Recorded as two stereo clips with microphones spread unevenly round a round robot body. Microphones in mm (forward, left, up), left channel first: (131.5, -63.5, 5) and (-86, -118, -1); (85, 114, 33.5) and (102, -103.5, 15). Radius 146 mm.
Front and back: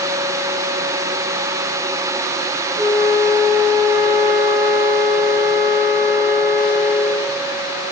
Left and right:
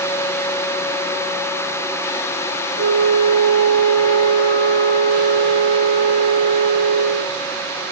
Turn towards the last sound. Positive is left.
turn(degrees=-85)